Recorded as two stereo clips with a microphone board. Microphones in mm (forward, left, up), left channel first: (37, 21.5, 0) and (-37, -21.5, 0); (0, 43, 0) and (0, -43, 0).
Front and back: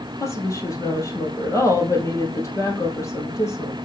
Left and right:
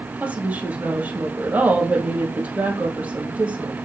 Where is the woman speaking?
20° right, 2.5 m.